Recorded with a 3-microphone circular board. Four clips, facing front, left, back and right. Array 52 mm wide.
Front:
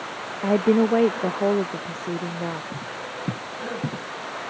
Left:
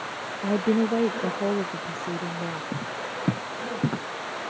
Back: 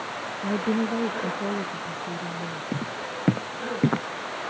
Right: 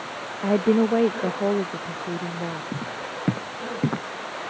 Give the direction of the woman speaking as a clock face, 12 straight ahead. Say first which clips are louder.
Right 4 dB, front 7 dB; 1 o'clock.